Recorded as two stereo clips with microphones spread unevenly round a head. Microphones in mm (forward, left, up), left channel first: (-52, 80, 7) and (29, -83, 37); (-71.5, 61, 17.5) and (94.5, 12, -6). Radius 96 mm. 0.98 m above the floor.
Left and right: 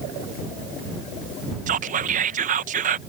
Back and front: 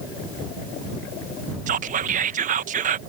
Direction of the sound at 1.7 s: 20° right.